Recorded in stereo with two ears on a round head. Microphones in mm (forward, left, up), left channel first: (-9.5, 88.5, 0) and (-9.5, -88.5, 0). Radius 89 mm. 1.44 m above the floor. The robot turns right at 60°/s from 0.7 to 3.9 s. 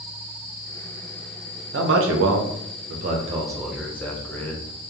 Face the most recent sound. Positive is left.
turn(degrees=10)  # may be behind; listen again after turning